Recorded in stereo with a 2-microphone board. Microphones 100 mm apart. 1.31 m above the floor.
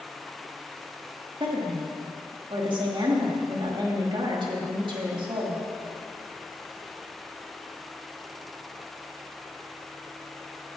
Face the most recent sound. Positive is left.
turn(degrees=-55)  # may be behind; listen again after turning